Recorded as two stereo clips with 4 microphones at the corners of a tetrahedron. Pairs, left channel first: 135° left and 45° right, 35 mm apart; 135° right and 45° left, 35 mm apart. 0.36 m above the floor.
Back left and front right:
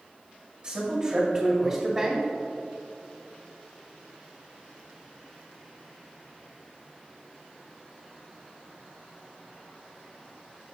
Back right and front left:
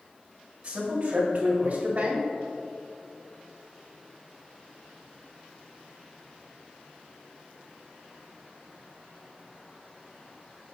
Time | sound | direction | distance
0.6 | a man speaking | straight ahead | 1.4 m